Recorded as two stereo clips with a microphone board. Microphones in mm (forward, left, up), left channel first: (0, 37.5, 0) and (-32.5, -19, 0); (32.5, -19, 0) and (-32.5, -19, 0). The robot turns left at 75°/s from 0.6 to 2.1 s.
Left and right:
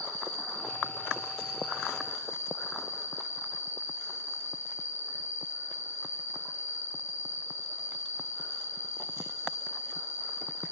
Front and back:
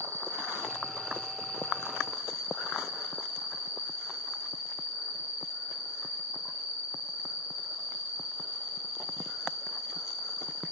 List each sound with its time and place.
0.0 s an insect: 140° right, 5 m; by 10.7 s 110° left, 5 m